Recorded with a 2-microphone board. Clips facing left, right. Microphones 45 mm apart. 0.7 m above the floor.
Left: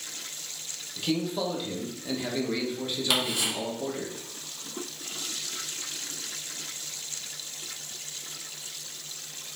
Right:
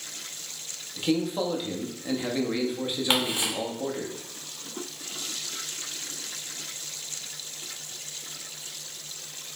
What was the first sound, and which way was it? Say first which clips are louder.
A man speaking: right 3 dB; 15° right (ahead or behind).